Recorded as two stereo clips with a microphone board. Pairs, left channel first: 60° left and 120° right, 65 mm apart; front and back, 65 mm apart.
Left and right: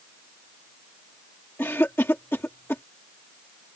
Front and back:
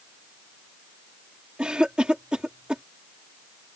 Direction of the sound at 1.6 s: 105° left.